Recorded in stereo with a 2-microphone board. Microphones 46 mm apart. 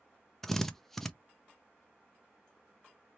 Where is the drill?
10° left (ahead or behind), 0.7 m.